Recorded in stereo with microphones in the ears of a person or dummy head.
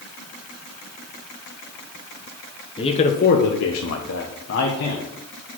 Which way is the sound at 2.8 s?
30° left (ahead or behind).